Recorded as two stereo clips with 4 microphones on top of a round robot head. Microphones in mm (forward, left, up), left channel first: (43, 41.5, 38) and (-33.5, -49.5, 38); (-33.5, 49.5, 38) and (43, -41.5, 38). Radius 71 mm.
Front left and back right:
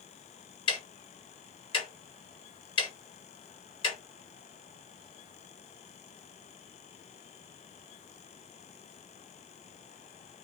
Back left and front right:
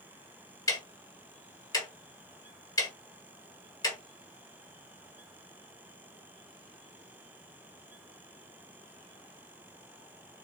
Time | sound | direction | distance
0.7 | ticking | 80° left | 1.6 m